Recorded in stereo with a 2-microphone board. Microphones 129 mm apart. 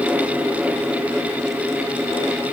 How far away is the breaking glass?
No breaking glass in this recording.